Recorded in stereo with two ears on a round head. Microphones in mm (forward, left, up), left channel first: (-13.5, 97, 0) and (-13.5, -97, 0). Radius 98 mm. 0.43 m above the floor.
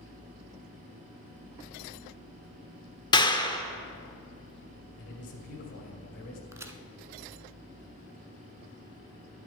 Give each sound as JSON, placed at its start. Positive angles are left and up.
{"t": 3.1, "sound": "a clap", "side_deg": 20, "distance_m": 0.7}
{"t": 5.0, "sound": "a man speaking", "side_deg": 55, "distance_m": 2.0}
{"t": 6.5, "sound": "a crack", "side_deg": -15, "distance_m": 0.7}